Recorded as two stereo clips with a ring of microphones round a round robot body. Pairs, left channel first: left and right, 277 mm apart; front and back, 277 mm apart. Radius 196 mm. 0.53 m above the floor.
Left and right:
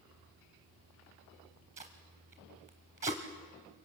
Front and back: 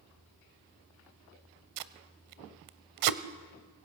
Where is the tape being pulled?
165° right, 0.7 m.